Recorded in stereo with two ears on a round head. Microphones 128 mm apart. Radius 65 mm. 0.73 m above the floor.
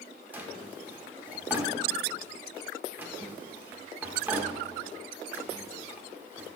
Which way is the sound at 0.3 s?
10° right (ahead or behind).